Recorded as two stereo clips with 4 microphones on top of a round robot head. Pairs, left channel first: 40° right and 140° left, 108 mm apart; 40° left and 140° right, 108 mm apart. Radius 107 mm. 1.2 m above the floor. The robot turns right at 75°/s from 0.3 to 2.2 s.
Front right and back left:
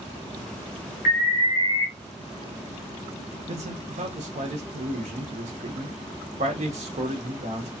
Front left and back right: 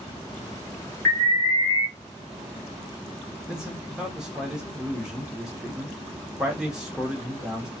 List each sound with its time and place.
1.1 s an alarm: 30° right, 0.9 m; by 1.9 s 30° left, 0.9 m
3.5 s a man speaking: 135° left, 1.1 m